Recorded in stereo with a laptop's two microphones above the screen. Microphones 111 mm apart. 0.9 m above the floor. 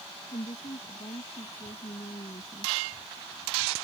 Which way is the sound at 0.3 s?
60° left (ahead or behind).